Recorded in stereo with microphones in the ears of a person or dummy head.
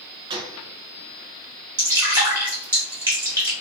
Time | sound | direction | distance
0.3 | a gunshot | 35° right (ahead or behind) | 0.5 m
1.8 | dripping | 20° right (ahead or behind) | 1.4 m